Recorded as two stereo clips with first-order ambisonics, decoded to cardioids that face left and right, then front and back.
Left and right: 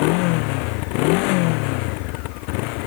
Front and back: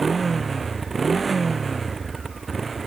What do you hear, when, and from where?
0.0 s a motorcycle: 105° left